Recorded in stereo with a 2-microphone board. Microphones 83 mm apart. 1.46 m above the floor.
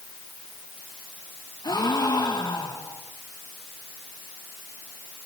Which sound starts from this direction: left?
A gasp, at 1.6 s.